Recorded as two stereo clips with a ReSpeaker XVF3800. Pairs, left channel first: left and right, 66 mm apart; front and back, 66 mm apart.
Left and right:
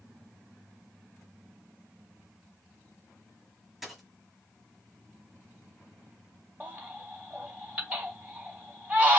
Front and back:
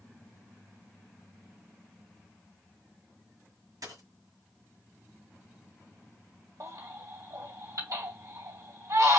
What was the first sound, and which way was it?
A dropped coin, 175° right.